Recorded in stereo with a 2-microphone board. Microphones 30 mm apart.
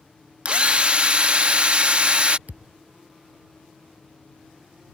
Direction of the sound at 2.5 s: 60° right (ahead or behind).